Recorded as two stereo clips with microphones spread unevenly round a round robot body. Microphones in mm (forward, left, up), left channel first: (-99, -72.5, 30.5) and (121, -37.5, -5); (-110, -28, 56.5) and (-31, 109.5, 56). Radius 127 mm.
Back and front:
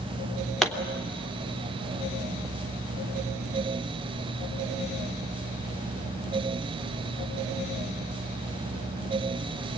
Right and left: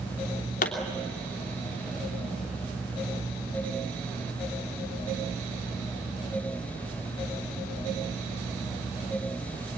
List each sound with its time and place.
0.6 s a pop: 80° right, 3 m